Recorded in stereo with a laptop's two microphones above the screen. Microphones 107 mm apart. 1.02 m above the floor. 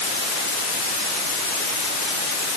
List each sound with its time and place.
Only background noise.